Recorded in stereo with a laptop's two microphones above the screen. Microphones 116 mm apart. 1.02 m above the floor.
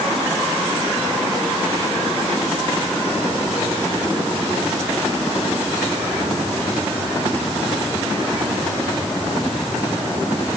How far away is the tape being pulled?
No tape being pulled in this recording.